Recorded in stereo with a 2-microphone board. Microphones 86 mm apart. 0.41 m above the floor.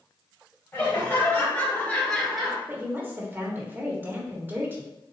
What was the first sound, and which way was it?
Laughter, 25° left (ahead or behind).